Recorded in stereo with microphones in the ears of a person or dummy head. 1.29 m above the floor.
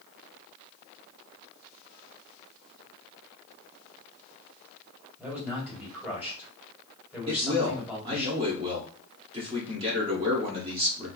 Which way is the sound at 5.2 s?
5° right (ahead or behind).